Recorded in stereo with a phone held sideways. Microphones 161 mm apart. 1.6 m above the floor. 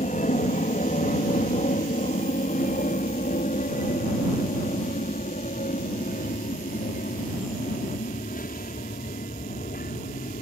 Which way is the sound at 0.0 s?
55° left (ahead or behind).